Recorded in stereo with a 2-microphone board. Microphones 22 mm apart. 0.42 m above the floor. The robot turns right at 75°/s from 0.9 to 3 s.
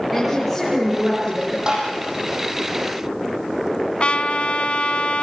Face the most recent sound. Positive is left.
turn(degrees=70)  # may be behind; listen again after turning